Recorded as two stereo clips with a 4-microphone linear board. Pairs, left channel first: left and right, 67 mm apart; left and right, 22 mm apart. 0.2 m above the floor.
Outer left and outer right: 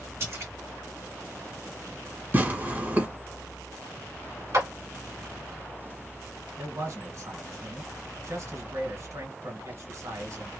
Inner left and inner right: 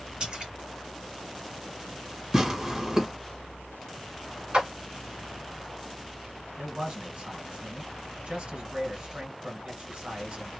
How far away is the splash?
About 2.5 m.